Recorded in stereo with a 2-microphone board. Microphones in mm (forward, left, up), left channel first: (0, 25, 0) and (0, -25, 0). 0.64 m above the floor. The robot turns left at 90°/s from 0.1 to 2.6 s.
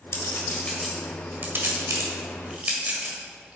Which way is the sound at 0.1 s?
70° left (ahead or behind).